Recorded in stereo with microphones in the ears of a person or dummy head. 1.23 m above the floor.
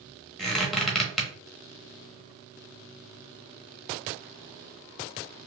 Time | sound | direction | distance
0.4 | a squeak | 5° left (ahead or behind) | 1.0 m